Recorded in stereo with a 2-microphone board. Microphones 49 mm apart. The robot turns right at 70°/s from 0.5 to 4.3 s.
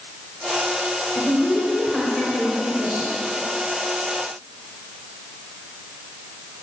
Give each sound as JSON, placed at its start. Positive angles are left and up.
{"t": 1.1, "sound": "a woman speaking", "azimuth_deg": 125, "distance_m": 1.8}